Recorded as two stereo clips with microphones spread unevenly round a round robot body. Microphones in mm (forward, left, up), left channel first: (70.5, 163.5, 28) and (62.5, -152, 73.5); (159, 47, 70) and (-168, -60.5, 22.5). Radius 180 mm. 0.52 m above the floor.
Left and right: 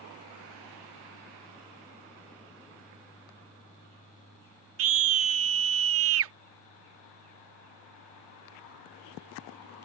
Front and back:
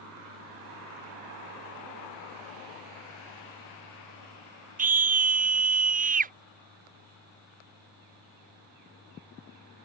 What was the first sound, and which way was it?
A scream, 120° right.